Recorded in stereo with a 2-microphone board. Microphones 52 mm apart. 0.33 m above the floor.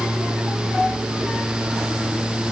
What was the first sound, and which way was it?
Only background noise.